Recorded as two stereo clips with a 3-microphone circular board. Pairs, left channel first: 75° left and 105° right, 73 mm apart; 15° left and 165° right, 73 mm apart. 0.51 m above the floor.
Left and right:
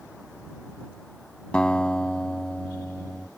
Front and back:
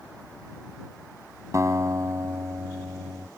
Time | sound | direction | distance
1.5 | a guitar | 150° left | ?